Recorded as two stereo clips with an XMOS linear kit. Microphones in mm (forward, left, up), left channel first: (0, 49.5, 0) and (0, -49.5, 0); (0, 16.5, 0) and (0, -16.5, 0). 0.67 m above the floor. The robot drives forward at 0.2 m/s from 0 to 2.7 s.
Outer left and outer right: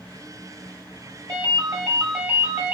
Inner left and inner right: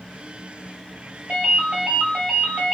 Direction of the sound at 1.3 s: 35° right (ahead or behind).